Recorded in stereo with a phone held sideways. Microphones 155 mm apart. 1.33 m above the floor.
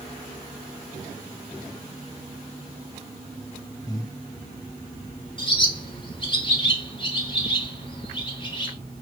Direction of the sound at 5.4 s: 30° left (ahead or behind).